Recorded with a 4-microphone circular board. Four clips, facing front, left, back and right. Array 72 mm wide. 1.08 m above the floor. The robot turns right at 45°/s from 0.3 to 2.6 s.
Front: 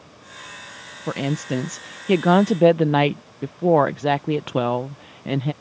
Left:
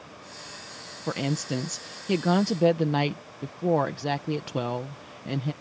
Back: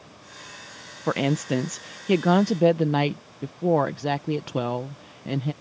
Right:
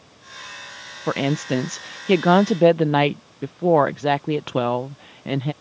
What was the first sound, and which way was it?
A woman speaking, 125° right.